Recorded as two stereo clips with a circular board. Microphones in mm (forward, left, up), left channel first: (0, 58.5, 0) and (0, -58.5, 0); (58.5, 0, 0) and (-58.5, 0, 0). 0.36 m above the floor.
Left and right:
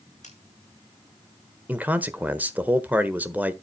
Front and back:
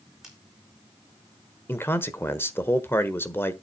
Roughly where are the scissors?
Left.